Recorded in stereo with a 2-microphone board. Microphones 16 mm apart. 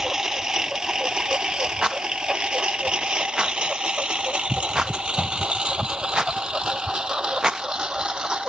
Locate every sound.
0.0 s a lawn mower: 30° right (ahead or behind); by 8.5 s 65° right (ahead or behind)
1.8 s a rattle: 50° right (ahead or behind)